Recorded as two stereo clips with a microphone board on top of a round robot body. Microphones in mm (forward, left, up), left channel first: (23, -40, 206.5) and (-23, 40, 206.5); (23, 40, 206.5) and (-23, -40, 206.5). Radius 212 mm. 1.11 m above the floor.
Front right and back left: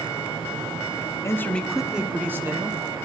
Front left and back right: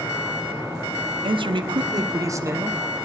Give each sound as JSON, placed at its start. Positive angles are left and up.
{"t": 1.2, "sound": "a man speaking", "azimuth_deg": -115, "distance_m": 1.1}